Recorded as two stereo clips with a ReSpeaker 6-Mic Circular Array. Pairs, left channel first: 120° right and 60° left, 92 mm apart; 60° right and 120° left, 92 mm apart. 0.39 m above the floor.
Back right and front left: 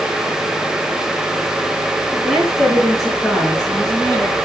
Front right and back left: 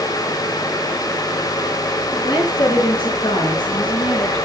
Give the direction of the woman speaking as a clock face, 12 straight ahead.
1 o'clock.